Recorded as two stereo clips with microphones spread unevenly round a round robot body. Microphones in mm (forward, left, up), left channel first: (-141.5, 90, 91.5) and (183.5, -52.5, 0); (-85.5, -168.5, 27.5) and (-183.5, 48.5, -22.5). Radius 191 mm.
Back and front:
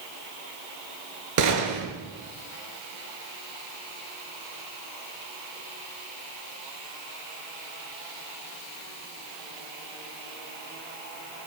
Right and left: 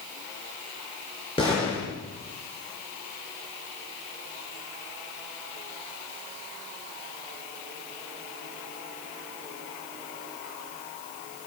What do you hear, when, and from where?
1.4 s a gunshot: 15° left, 4 m